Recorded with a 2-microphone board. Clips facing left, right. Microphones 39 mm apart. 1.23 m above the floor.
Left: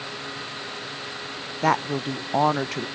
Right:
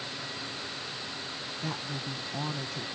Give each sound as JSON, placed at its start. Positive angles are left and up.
{"t": 1.6, "sound": "a woman speaking", "side_deg": 75}